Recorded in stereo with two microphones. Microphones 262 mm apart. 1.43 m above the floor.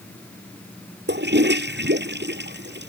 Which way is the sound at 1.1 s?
45° right (ahead or behind).